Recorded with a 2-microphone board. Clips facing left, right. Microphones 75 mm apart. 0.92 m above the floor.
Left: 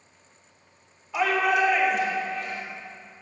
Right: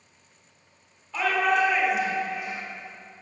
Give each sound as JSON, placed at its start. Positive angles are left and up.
{"t": 1.1, "sound": "a shout", "side_deg": 10, "distance_m": 3.0}